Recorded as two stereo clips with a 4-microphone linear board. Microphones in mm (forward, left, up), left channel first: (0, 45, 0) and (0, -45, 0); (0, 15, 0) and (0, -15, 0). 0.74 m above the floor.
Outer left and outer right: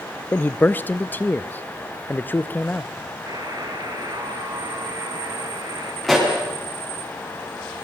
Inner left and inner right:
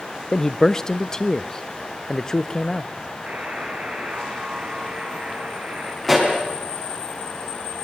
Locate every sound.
0.3 s a man speaking: 20° left (ahead or behind), 0.5 m
3.3 s a buzzer: 40° right (ahead or behind), 3 m
6.0 s a pop: centre (ahead or behind), 5.5 m